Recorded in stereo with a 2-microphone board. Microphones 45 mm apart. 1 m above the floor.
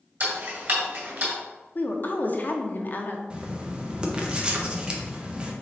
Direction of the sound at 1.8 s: 45° left (ahead or behind).